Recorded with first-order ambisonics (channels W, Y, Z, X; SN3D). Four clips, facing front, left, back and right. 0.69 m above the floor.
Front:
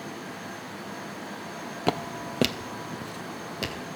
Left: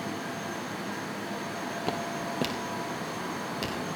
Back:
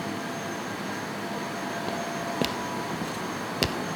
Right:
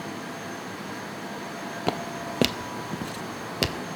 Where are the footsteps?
30° right, 0.8 m; by 3.8 s 130° right, 1.1 m.